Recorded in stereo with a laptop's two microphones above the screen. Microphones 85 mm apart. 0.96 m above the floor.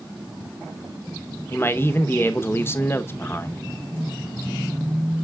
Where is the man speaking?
25° left (ahead or behind), 0.8 m.